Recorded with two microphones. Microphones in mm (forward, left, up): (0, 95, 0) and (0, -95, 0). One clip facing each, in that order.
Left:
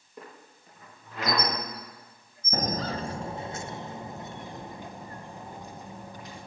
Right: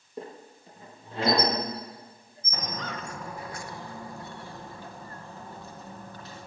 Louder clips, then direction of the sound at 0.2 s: Right 7 dB; 30° right (ahead or behind).